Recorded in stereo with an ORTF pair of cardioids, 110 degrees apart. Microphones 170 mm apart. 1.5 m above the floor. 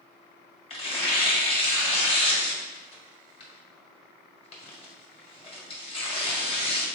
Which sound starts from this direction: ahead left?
Tearing paper, at 0.7 s.